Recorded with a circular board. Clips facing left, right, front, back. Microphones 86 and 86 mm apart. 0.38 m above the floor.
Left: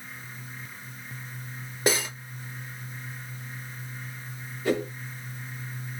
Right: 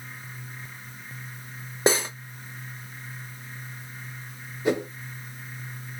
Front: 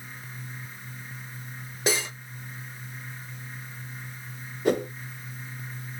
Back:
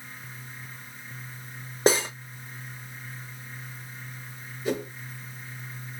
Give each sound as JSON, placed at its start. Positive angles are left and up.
{"t": 1.9, "sound": "cutlery clinking", "azimuth_deg": -145, "distance_m": 0.7}
{"t": 4.7, "sound": "a whoosh", "azimuth_deg": -20, "distance_m": 0.7}